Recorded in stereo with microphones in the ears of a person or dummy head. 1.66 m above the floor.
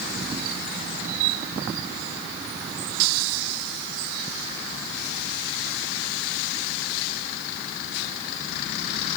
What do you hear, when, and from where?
Only background noise.